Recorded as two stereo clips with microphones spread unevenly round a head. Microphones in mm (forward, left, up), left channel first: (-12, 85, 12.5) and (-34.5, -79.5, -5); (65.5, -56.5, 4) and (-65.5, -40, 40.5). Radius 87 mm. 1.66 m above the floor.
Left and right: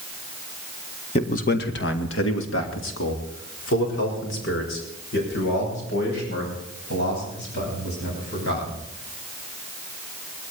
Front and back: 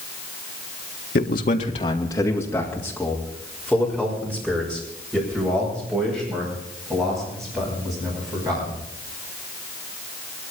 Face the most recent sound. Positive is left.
turn(degrees=100)